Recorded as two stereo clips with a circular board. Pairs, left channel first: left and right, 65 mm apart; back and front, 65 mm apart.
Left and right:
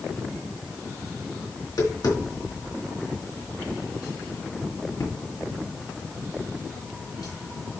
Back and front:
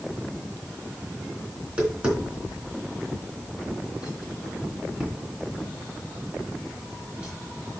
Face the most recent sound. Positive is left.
turn(degrees=70)